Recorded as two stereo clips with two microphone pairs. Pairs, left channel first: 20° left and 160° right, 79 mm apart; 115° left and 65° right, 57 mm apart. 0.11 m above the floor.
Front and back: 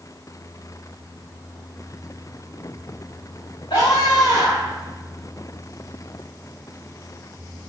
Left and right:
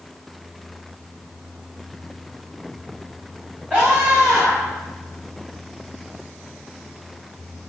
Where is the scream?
5° left, 9.5 m.